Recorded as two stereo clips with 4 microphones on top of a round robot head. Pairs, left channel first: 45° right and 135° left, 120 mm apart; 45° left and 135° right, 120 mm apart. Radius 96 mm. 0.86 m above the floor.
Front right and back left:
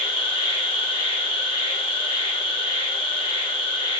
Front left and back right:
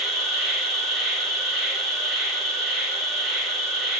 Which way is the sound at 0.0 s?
40° right.